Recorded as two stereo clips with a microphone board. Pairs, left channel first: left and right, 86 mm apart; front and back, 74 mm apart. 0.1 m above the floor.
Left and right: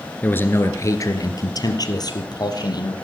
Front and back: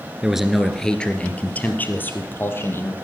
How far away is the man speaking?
About 1.4 m.